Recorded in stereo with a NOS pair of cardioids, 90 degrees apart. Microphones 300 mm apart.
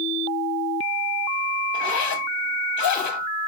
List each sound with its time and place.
1.7 s a zipper: 65° left, 1.1 m